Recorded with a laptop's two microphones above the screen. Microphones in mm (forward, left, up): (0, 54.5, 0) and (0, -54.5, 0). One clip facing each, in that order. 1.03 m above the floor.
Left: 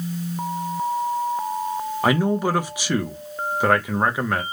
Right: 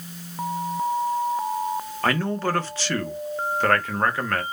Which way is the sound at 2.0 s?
15° left (ahead or behind).